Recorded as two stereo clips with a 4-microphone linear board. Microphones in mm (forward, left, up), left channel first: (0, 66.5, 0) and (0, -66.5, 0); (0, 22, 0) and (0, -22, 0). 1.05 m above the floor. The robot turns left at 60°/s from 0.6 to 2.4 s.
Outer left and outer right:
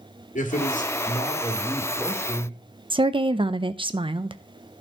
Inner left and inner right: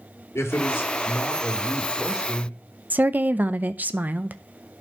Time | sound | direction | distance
0.3 | a man speaking | 75° left | 2 m
2.9 | a woman speaking | 40° right (ahead or behind) | 0.6 m